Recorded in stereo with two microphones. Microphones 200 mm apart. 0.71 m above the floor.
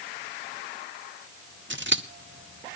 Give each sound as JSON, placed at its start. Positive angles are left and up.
{"t": 1.7, "sound": "scissors", "side_deg": -70, "distance_m": 0.9}